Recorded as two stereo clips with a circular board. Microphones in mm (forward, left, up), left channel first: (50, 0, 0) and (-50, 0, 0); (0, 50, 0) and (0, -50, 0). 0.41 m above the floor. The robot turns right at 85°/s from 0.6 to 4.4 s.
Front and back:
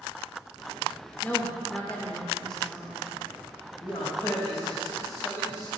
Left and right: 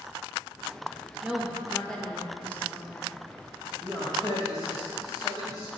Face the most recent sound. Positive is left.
turn(degrees=50)